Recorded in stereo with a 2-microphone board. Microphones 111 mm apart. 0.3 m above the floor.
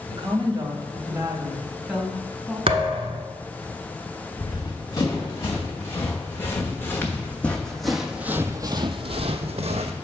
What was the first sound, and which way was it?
A woman speaking, 45° right (ahead or behind).